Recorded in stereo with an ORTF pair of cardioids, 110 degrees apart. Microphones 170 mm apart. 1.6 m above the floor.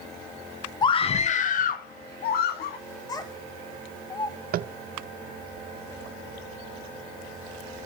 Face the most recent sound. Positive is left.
turn(degrees=-55)